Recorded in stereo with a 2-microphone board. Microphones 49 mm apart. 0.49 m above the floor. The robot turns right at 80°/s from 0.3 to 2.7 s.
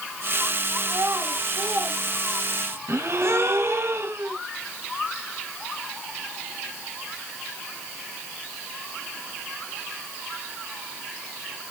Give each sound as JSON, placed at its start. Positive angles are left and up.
{"t": 0.8, "sound": "a child speaking", "side_deg": -65, "distance_m": 2.5}
{"t": 2.9, "sound": "a gasp", "side_deg": -65, "distance_m": 1.9}